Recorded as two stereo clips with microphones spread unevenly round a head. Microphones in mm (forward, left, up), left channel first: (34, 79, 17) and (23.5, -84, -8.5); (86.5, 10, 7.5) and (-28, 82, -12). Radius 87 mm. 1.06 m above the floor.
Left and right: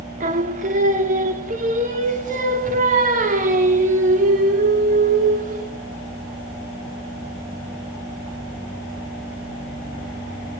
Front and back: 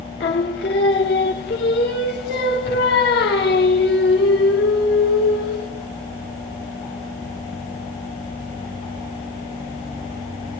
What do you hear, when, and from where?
0.2 s singing: 55° right, 2.5 m